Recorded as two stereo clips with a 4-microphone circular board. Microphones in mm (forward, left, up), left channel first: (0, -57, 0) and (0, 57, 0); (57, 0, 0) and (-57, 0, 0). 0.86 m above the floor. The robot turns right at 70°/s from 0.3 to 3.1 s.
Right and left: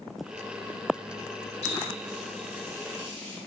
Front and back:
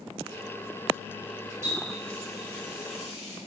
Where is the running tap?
115° right, 0.9 m; by 3.4 s 10° right, 0.9 m.